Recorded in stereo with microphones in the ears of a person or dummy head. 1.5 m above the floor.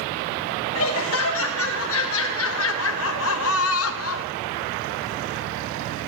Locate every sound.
0.7 s laughter: 80° left, 2.5 m; by 4.3 s 85° left, 0.8 m